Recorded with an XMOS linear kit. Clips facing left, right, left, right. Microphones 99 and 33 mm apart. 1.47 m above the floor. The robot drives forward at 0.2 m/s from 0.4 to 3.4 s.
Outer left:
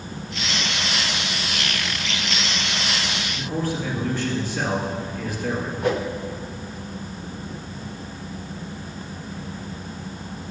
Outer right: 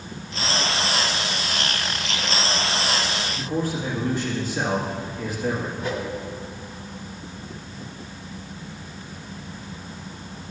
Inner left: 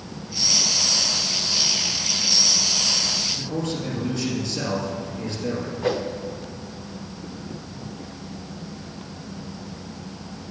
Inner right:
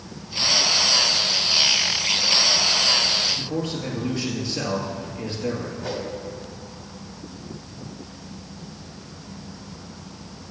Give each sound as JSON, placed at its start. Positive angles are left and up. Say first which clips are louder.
{"t": 3.3, "sound": "a man speaking", "louder": "outer left 1 dB, even", "side_deg": -20, "distance_m": 2.5}
{"t": 5.8, "sound": "a whoosh", "louder": "outer left 8 dB, inner left 8 dB", "side_deg": 55, "distance_m": 0.8}